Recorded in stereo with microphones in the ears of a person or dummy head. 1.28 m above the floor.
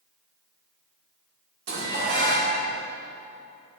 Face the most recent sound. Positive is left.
turn(degrees=-65)  # may be behind; listen again after turning